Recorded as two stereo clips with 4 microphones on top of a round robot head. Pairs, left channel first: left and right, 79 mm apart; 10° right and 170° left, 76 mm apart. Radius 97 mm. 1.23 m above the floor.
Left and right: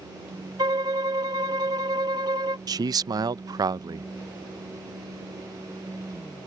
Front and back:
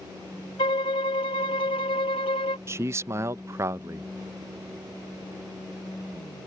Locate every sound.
0.6 s a violin: 35° right
2.7 s a man speaking: 130° right